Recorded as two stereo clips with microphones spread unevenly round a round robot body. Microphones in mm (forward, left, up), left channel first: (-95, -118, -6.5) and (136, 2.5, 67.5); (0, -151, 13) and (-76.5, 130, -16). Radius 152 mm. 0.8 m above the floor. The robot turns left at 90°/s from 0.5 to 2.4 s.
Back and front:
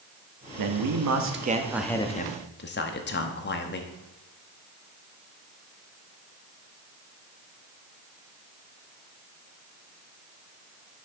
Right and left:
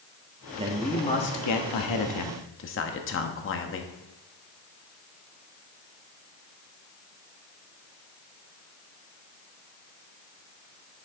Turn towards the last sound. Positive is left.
turn(degrees=-120)